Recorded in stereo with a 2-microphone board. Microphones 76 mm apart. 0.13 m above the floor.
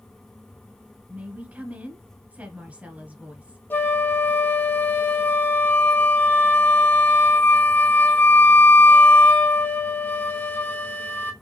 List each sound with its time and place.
1.1 s a woman speaking: 20° right (ahead or behind), 1.3 m
3.7 s a flute: 25° left (ahead or behind), 1.4 m